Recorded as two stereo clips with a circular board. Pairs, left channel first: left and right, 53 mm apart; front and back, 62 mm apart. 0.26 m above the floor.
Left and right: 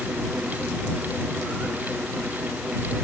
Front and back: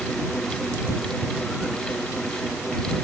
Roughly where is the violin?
No violin in this recording.